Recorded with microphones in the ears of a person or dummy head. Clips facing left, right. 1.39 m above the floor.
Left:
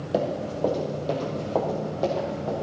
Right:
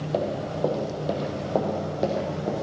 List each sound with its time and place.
0.1 s running footsteps: 10° left (ahead or behind), 2.5 m; by 2.5 s 30° right (ahead or behind), 4 m